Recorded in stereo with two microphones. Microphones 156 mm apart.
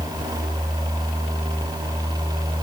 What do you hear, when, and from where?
Only background noise.